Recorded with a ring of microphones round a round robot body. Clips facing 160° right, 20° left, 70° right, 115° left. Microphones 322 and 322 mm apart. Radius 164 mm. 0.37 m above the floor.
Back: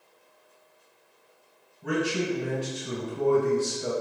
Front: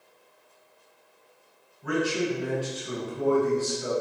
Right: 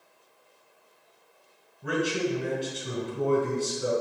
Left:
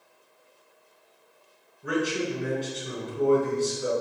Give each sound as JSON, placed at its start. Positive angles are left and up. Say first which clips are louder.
{"t": 1.8, "sound": "a man speaking", "louder": "front 1 dB, even", "azimuth_deg": -110, "distance_m": 1.9}